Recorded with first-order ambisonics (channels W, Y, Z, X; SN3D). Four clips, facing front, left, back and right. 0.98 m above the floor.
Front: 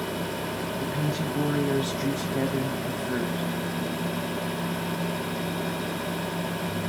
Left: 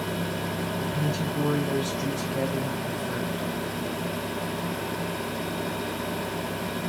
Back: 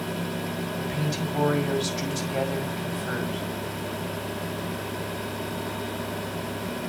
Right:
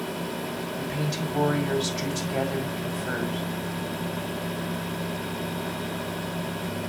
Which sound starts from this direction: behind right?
A woman speaking, at 0.8 s.